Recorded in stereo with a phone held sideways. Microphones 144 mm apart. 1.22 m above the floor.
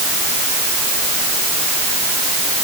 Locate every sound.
Only background noise.